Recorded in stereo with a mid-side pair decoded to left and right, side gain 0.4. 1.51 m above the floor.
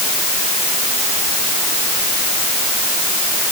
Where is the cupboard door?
I don't hear a cupboard door.